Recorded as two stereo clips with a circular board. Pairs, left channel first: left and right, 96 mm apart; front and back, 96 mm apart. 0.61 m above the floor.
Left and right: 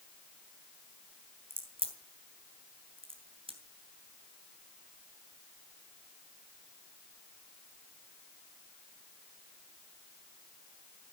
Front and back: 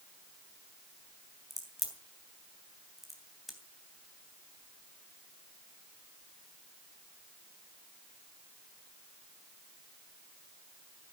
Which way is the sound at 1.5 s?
90° right.